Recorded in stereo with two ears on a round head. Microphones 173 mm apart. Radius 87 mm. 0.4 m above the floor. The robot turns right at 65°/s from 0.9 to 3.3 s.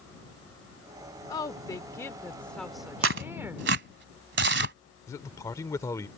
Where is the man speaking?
15° left (ahead or behind).